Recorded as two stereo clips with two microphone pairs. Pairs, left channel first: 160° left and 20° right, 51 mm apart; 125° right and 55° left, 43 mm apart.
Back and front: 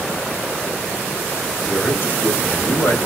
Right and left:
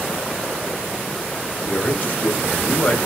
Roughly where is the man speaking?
Behind.